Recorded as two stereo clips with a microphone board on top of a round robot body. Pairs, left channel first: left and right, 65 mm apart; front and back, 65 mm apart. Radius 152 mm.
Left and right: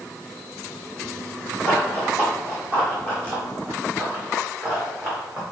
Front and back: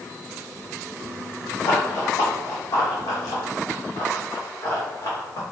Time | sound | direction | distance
1.6 | running footsteps | 35° right | 2.5 m